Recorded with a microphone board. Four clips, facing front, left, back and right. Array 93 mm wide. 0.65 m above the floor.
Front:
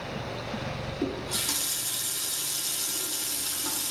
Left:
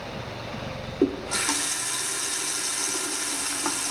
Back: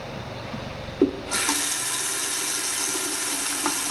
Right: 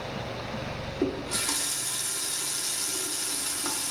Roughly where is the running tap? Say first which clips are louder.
Left 6 dB, back 11 dB; behind left.